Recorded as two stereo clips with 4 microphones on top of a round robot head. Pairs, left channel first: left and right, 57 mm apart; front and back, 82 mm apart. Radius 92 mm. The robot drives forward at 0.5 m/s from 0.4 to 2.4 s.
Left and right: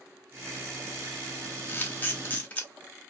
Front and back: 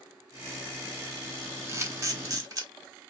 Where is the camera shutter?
135° left, 1.1 m; by 2.7 s 150° left, 1.3 m.